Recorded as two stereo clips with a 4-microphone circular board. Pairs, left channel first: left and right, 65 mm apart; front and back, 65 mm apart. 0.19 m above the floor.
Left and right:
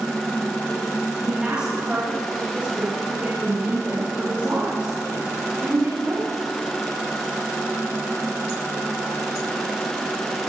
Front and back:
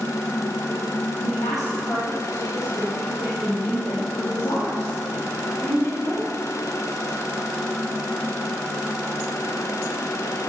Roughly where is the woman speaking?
Ahead.